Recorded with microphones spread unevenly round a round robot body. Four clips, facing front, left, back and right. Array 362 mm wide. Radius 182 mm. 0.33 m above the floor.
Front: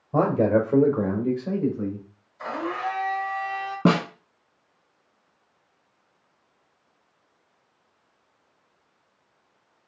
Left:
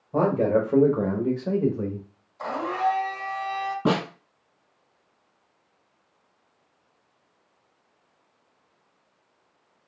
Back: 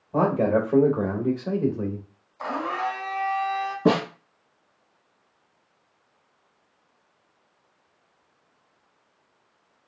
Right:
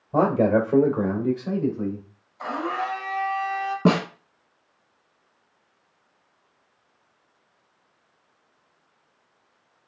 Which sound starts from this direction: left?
A blender, at 2.4 s.